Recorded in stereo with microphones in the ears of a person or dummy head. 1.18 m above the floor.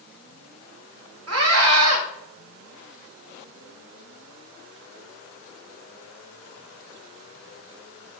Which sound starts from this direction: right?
A scream, at 1.3 s.